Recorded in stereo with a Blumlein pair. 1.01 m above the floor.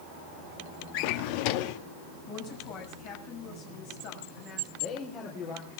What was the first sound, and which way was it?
A drawer, 45° left.